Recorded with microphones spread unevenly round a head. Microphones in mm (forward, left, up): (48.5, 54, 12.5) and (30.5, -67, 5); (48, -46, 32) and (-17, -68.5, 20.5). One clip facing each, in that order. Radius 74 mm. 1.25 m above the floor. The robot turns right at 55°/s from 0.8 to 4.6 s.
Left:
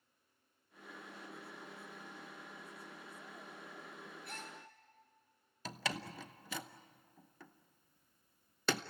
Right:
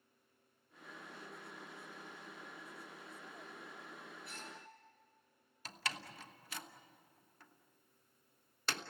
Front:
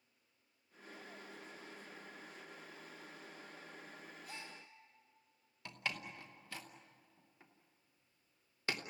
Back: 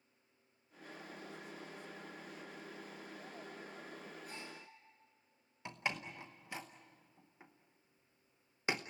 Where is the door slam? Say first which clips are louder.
Left 4 dB, back 3 dB; 120° left, 0.8 m.